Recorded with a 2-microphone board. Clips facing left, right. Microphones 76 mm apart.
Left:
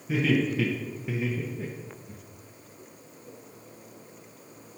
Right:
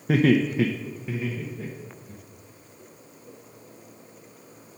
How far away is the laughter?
About 0.5 m.